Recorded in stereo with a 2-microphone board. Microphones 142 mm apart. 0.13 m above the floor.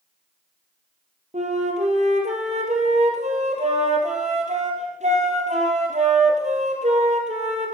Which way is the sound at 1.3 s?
55° right (ahead or behind).